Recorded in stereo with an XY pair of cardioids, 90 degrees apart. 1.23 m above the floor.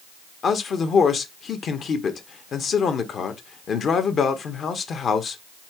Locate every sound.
0.4 s a man speaking: 60° left, 1.0 m